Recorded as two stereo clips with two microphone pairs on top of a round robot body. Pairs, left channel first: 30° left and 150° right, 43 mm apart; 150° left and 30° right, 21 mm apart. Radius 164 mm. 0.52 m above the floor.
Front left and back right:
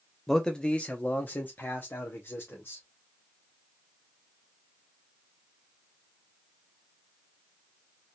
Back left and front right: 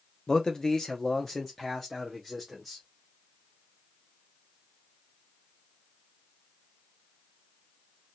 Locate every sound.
0.3 s a man speaking: 105° left, 0.9 m; by 2.8 s 60° left, 1.7 m